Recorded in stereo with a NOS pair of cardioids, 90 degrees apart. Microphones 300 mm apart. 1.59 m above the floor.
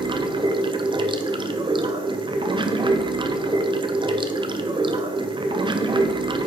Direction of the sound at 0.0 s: 15° right.